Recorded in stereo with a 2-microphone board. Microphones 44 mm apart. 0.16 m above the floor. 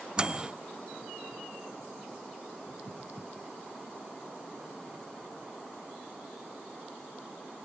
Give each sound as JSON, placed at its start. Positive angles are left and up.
{"t": 0.2, "sound": "a microwave", "side_deg": -20, "distance_m": 0.8}